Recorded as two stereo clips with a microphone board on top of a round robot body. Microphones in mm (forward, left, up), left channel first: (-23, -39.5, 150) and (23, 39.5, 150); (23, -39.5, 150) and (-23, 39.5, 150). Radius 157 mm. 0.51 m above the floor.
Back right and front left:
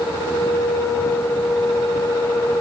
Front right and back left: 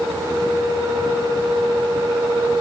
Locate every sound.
Only background noise.